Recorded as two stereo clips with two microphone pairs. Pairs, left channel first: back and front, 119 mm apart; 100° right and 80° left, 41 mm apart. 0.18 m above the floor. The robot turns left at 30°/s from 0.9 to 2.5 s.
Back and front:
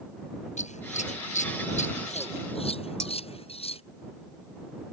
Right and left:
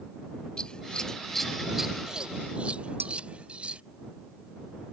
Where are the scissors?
170° right; by 3.8 s 145° left.